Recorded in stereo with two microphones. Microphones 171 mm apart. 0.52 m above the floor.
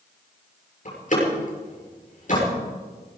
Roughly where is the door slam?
Left.